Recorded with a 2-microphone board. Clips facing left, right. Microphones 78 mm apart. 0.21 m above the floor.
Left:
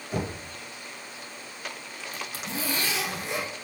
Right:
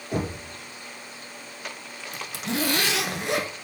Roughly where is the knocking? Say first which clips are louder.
Right 3 dB; right.